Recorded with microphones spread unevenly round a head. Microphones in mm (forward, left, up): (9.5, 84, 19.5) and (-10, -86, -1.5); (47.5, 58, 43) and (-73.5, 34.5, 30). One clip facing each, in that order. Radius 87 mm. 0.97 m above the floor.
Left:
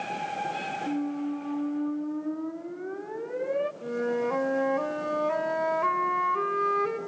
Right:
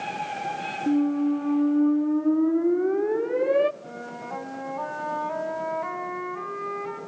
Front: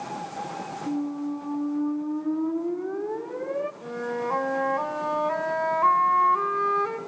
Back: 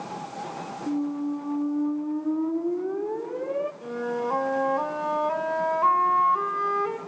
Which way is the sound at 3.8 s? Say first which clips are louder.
Left 10 dB, back 1 dB; 110° left.